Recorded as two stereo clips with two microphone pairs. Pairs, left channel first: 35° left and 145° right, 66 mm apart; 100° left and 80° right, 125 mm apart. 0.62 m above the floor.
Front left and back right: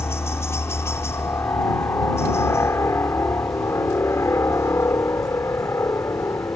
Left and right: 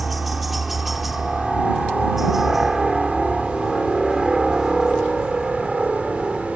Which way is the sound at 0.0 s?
10° left.